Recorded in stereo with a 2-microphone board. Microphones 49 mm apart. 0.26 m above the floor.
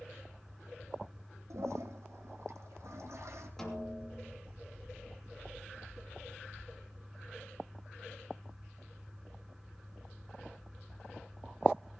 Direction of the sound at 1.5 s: 75° right (ahead or behind).